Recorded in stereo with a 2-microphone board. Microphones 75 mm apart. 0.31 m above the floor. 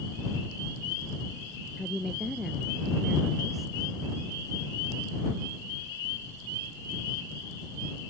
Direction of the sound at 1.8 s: Centre (ahead or behind).